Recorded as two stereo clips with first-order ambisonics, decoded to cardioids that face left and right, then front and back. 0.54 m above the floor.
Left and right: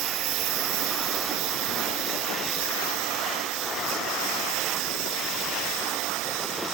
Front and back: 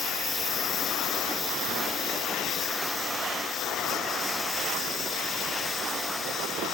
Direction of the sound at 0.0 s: 70° right.